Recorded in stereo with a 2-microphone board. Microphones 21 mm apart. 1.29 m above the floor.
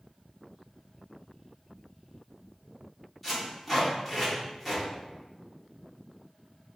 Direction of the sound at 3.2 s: 5° right (ahead or behind).